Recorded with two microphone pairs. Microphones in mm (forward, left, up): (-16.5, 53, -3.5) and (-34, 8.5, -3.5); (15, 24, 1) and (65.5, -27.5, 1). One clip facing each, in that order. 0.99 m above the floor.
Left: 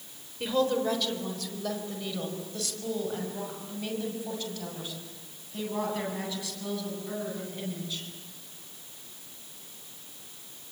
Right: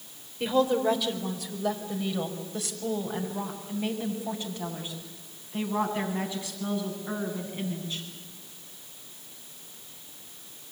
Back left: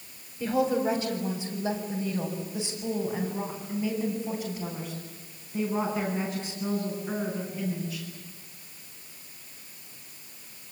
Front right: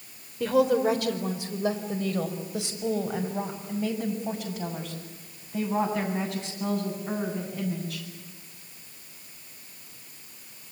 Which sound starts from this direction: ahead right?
A woman speaking, at 0.4 s.